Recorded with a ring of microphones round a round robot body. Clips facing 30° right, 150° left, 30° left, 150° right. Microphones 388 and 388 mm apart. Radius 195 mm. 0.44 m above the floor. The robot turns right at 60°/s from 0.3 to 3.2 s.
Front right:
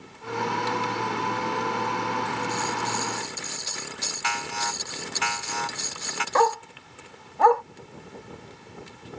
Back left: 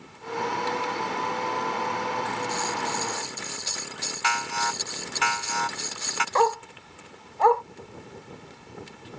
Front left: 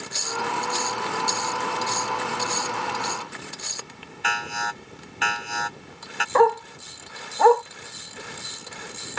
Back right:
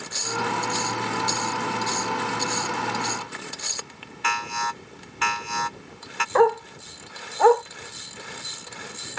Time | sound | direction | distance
4.2 | an alarm | 130° left | ?
6.3 | a dog barking | 10° left | ?